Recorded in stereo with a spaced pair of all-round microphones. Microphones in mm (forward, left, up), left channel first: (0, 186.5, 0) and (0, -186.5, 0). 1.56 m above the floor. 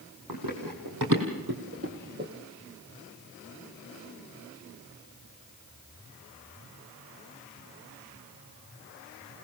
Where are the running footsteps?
65° right (ahead or behind), 4.5 m; by 2.3 s 25° right (ahead or behind), 2.5 m.